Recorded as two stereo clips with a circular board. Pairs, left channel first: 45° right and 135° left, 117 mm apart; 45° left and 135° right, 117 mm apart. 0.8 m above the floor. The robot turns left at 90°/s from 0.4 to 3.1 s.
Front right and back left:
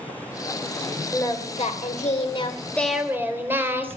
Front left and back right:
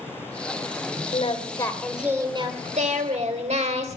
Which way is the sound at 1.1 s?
25° left.